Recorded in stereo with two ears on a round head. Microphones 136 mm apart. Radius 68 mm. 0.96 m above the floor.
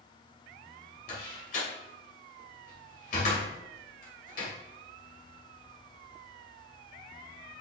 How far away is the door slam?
About 3 m.